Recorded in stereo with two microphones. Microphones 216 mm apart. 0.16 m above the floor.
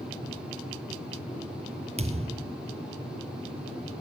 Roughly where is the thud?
Right.